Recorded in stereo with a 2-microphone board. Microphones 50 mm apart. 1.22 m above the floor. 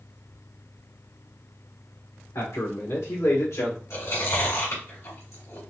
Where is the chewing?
75° left (ahead or behind), 2 m.